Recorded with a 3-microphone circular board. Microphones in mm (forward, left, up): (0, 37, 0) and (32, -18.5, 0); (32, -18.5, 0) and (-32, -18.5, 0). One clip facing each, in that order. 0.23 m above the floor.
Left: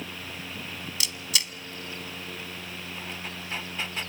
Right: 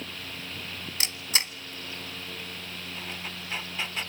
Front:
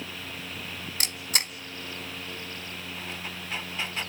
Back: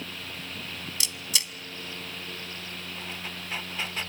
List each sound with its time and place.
1.0 s a camera shutter: 20° right, 1.0 m